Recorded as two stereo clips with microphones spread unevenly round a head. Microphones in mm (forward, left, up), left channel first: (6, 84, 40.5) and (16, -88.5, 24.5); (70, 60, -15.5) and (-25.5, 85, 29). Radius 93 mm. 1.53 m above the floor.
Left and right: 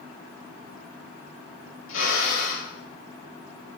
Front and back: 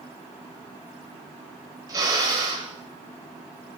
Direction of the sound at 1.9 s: 115° left.